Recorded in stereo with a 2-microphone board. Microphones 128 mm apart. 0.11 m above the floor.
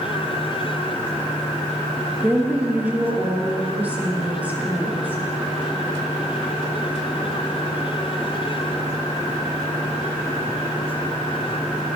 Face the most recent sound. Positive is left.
turn(degrees=-15)  # may be behind; listen again after turning